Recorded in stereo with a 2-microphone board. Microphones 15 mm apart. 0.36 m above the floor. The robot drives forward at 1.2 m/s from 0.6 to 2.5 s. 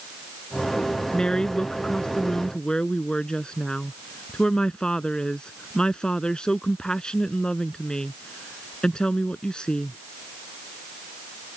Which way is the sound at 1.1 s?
65° left (ahead or behind).